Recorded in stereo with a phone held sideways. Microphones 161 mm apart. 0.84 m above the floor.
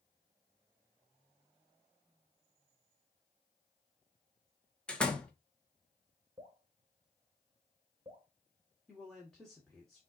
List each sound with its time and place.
4.9 s a door slam: 5° left (ahead or behind), 0.8 m
6.4 s dripping: 30° right (ahead or behind), 1.6 m
8.9 s a man speaking: 5° left (ahead or behind), 1.4 m